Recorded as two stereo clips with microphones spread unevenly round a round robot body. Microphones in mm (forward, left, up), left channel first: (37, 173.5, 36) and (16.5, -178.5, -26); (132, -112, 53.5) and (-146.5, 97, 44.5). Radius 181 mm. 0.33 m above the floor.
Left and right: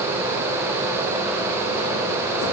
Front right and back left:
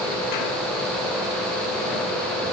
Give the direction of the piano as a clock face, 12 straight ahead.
No piano in this recording.